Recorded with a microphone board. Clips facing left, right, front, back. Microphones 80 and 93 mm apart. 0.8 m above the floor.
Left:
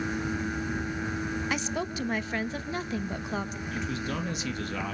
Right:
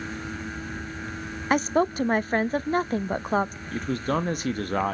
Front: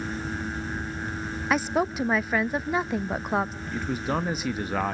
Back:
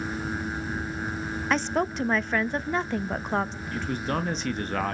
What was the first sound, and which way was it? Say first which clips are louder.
A woman speaking: right 9 dB, front 1 dB; 80° right.